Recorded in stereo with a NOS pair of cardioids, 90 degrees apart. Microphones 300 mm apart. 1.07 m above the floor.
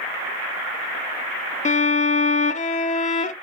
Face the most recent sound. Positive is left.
turn(degrees=25)